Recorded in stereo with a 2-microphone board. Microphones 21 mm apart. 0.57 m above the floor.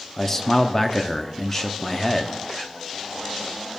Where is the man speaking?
15° left (ahead or behind), 0.6 m.